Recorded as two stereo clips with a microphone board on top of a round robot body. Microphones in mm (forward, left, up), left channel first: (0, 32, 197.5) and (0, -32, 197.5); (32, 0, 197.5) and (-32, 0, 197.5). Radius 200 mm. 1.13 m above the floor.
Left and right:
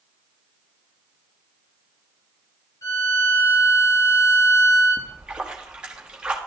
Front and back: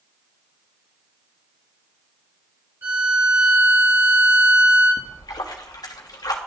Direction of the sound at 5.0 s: 10° right.